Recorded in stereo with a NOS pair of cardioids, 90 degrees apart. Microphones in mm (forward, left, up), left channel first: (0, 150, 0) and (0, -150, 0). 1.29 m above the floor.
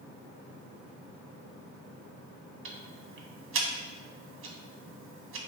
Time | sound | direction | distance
2.6 | ticking | 45° right | 0.8 m